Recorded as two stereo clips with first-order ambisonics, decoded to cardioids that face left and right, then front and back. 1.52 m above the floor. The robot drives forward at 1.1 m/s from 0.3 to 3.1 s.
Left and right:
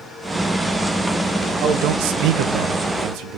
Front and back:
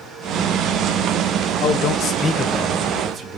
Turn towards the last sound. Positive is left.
turn(degrees=-120)